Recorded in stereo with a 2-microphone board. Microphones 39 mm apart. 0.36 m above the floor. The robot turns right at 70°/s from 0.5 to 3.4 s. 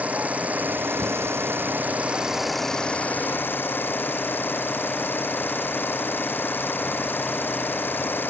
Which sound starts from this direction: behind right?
An engine running, at 0.0 s.